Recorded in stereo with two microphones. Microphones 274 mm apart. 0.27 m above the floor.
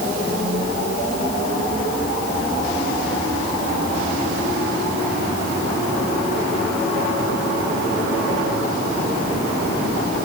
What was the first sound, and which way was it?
Only background noise.